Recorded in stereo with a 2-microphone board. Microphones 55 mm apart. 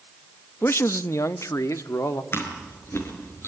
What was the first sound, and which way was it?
A man speaking, 50° left (ahead or behind).